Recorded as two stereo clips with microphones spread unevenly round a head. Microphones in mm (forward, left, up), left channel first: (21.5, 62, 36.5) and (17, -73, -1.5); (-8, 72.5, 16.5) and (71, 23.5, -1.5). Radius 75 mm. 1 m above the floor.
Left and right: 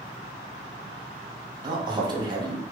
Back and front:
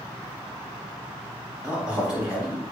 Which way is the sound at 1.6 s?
100° right.